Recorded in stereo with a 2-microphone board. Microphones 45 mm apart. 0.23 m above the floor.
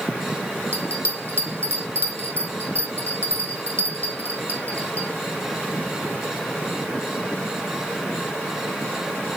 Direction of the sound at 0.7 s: 60° right (ahead or behind).